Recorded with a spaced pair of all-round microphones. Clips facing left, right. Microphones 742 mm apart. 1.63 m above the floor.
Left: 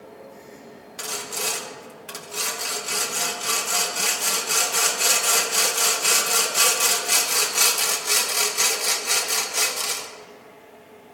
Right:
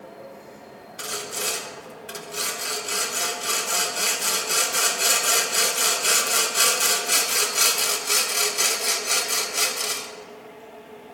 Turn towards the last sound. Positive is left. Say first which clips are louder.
# right 1 dB
turn(degrees=30)  # may be behind; listen again after turning